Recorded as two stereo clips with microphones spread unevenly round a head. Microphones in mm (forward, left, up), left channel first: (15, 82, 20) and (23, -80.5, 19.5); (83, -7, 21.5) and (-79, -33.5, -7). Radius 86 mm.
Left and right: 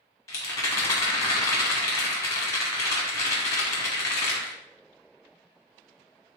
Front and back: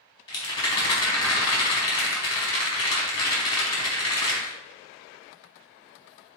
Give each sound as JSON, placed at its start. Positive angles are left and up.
{"t": 0.3, "sound": "a rattle", "azimuth_deg": 35, "distance_m": 1.0}